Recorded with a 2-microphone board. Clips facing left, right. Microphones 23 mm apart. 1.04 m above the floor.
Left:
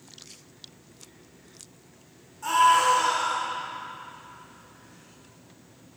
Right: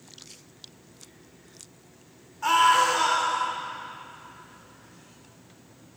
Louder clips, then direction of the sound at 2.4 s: Even; 35° right (ahead or behind).